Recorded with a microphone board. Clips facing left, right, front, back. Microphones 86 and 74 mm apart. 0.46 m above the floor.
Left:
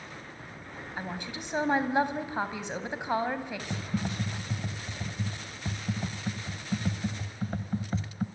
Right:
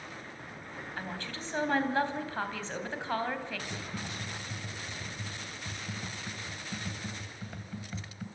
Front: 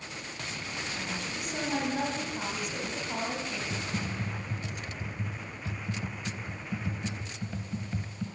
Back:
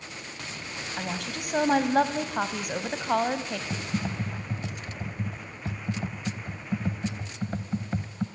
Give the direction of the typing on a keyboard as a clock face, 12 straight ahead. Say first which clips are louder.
Left 6 dB, back 3 dB; 7 o'clock.